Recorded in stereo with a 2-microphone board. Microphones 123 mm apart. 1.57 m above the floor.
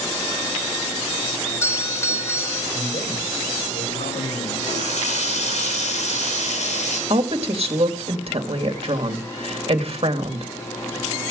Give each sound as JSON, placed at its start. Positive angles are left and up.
{"t": 1.4, "sound": "a doorbell", "side_deg": 20, "distance_m": 1.4}
{"t": 2.7, "sound": "a man speaking", "side_deg": 65, "distance_m": 9.0}
{"t": 4.6, "sound": "a running tap", "side_deg": 65, "distance_m": 5.5}
{"t": 7.1, "sound": "a woman speaking", "side_deg": -50, "distance_m": 2.5}